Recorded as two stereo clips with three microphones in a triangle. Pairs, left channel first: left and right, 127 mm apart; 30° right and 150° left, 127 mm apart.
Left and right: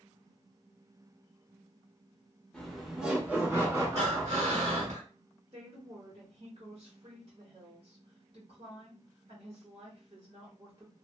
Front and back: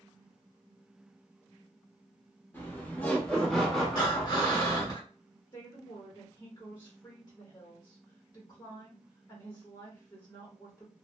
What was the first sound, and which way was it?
Laughter, 15° left.